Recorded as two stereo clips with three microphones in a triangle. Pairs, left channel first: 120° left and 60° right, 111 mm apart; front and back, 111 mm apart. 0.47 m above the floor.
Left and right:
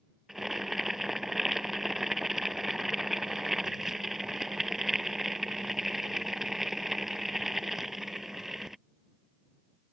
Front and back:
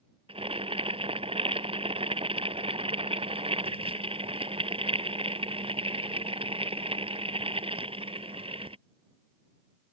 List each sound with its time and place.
0.3 s boiling: 150° right